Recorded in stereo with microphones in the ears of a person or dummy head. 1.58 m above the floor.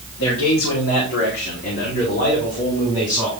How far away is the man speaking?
About 1.4 m.